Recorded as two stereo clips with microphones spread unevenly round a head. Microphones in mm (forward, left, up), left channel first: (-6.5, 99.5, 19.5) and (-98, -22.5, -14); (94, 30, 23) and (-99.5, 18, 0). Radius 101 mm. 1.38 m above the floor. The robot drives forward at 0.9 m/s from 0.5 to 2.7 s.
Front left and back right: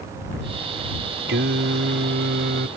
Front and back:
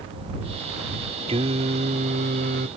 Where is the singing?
110° right; by 2.7 s 125° right.